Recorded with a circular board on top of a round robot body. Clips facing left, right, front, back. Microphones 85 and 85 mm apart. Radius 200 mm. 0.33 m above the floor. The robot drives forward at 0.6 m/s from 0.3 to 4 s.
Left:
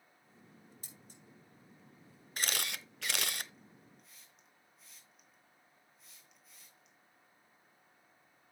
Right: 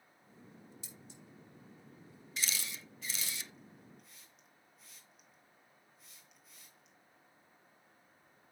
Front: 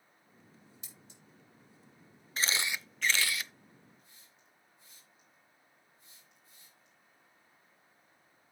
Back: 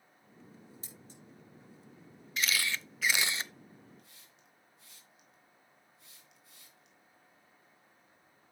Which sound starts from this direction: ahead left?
A camera shutter, at 2.4 s.